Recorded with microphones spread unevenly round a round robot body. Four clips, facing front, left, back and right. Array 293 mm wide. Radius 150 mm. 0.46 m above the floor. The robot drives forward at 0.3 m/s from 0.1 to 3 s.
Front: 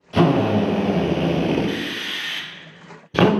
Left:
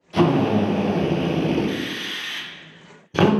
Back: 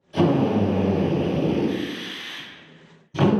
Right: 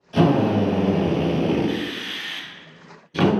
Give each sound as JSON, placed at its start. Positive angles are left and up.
{"t": 0.1, "sound": "a drill", "azimuth_deg": 10, "distance_m": 1.3}